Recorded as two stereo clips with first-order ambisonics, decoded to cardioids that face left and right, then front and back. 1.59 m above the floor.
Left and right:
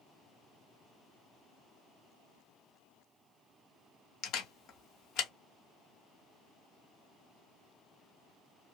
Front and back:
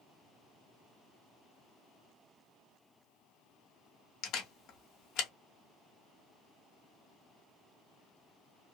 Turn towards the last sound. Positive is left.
turn(degrees=45)